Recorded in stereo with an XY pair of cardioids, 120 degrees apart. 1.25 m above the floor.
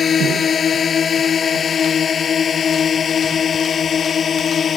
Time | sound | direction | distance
0.0 | a drone | 45° left | ?